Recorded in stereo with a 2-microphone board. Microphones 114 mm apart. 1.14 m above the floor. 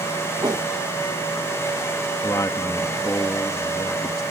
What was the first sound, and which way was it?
A whoosh, 40° right (ahead or behind).